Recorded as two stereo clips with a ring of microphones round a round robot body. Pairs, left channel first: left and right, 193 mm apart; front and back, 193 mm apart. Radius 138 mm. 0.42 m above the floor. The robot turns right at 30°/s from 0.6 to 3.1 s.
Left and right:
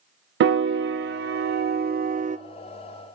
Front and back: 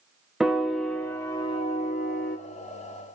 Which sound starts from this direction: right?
A piano, at 0.4 s.